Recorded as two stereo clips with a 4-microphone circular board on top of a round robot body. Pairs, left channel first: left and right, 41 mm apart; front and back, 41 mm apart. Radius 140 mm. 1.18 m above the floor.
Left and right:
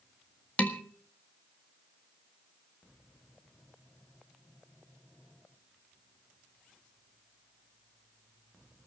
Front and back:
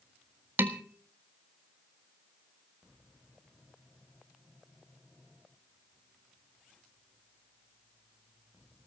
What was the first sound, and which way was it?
Dishes clattering, 150° left.